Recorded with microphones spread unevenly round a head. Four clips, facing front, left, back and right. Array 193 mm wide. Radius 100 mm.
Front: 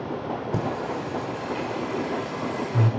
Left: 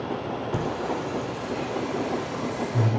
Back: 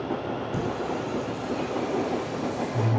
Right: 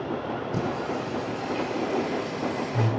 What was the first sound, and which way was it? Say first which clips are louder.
Singing: left 1 dB, front 1 dB; 15° left.